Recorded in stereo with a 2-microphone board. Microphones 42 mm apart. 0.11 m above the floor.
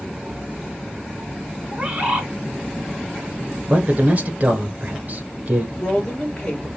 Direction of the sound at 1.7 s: 20° right (ahead or behind).